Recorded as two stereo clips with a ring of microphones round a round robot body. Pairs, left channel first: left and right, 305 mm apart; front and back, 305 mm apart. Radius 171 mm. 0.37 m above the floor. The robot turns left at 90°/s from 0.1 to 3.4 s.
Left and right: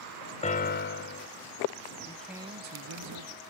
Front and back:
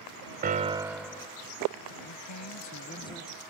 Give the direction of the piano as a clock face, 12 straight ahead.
7 o'clock.